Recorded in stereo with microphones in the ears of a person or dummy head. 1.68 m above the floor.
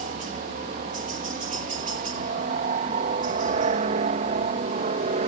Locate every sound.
0.0 s a helicopter: 45° right (ahead or behind); by 5.3 s 40° right (ahead or behind)